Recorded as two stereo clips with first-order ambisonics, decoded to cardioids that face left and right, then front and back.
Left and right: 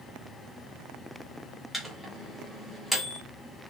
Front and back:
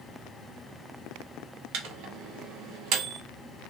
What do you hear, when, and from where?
1.7 s a microwave: 170° left, 0.7 m